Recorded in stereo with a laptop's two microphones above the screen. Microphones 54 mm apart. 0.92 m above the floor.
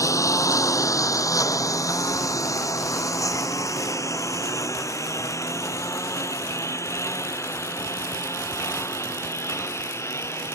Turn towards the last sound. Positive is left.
turn(degrees=55)  # may be behind; listen again after turning